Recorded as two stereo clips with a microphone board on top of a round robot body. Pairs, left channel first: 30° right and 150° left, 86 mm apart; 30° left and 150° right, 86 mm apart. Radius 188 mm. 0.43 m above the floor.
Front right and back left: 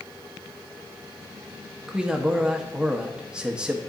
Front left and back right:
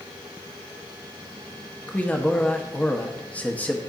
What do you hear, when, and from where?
1.9 s a man speaking: 80° left, 1.0 m